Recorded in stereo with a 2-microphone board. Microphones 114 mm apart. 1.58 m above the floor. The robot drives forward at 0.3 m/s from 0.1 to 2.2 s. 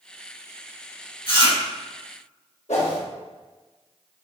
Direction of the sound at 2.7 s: 80° left.